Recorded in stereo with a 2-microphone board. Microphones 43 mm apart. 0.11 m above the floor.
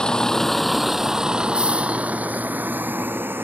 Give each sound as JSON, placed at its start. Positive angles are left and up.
{"t": 0.0, "sound": "a vehicle", "side_deg": 15}